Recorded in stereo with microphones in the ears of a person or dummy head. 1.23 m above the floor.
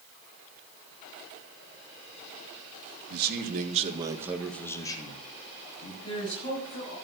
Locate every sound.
3.1 s a man speaking: 60° right (ahead or behind), 2.5 m; by 5.9 s 45° left (ahead or behind), 3 m
6.0 s a woman speaking: 35° left (ahead or behind), 6.5 m